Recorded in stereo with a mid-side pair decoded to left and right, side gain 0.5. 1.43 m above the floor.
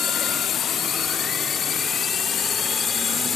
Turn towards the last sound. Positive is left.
turn(degrees=40)